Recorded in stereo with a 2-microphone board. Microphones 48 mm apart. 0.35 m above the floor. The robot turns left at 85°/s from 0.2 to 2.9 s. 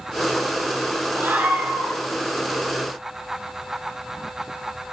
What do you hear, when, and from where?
1.1 s a scream: 115° right, 7.5 m; by 2.0 s 175° left, 7.5 m